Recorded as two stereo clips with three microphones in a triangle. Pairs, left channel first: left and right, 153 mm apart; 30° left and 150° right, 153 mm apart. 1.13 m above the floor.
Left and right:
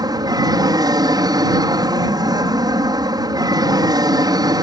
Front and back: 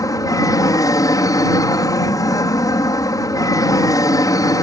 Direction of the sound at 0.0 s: 35° right.